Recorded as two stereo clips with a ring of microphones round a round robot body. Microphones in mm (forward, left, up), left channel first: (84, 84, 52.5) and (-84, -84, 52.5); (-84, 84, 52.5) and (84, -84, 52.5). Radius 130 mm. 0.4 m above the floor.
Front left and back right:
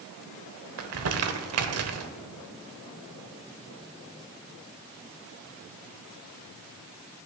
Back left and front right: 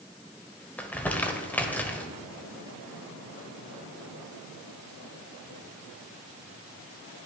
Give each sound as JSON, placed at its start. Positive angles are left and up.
{"t": 0.8, "sound": "crumpling", "azimuth_deg": -140, "distance_m": 0.8}